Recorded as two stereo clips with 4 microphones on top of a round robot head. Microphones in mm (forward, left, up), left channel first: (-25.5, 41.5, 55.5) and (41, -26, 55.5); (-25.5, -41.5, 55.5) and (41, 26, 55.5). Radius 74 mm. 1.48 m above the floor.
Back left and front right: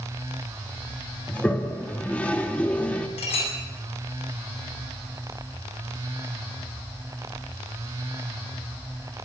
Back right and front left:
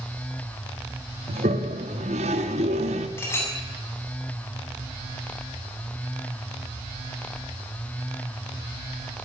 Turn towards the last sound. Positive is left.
turn(degrees=160)